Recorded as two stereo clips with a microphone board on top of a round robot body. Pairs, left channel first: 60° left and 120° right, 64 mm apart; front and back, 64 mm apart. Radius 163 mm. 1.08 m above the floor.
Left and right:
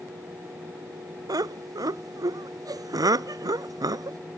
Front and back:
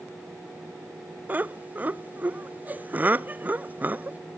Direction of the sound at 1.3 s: 120° right.